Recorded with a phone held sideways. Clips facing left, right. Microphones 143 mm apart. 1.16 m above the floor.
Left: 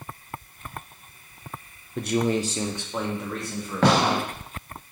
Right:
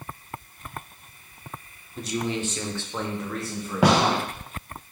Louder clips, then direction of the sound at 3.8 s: Even; 10° right (ahead or behind).